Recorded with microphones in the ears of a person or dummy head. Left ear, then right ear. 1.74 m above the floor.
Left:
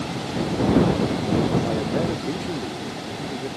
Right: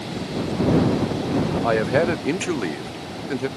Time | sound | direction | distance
1.6 | a man speaking | 55° right (ahead or behind) | ?